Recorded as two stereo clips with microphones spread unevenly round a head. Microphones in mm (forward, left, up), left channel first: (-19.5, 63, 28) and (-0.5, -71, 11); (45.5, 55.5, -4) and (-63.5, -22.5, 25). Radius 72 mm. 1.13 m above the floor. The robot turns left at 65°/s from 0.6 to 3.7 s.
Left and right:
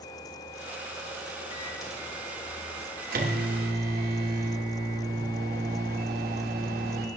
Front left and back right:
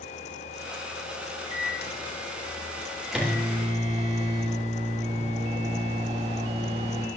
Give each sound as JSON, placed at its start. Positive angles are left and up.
{"t": 1.5, "sound": "a microwave", "azimuth_deg": 50, "distance_m": 3.0}